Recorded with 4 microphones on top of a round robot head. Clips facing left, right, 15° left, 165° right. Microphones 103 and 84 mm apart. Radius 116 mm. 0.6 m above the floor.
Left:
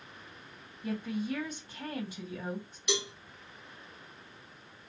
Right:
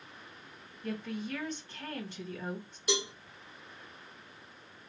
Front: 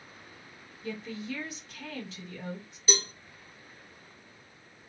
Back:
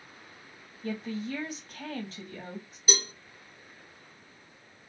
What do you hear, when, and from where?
0.8 s a woman speaking: 170° left, 1.6 m
2.9 s a cowbell: 95° right, 1.4 m